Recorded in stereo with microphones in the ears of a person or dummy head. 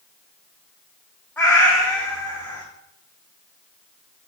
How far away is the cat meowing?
About 0.8 m.